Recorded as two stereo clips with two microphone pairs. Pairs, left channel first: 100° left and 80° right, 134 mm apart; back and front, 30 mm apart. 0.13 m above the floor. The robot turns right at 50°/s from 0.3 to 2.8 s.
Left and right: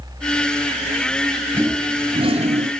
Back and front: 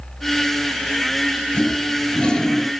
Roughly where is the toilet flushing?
Behind right.